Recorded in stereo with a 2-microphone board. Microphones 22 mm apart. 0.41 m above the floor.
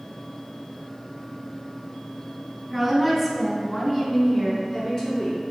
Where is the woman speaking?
Centre (ahead or behind), 2.5 m; by 5.4 s 40° left (ahead or behind), 4.5 m.